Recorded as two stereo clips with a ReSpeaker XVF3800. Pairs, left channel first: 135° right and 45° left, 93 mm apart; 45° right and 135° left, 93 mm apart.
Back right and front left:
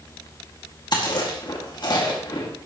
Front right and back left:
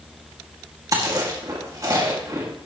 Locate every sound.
0.9 s chewing: 175° right, 2 m